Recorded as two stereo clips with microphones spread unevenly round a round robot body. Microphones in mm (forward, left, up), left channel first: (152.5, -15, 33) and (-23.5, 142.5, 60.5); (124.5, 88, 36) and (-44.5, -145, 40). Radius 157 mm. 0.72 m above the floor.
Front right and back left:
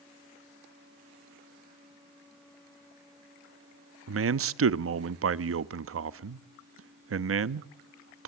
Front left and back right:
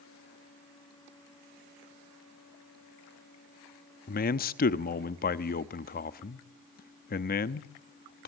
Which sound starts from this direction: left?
A man speaking, at 4.1 s.